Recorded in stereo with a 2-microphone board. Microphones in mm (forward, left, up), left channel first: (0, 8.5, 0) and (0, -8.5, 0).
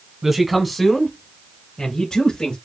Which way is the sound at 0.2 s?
20° right (ahead or behind).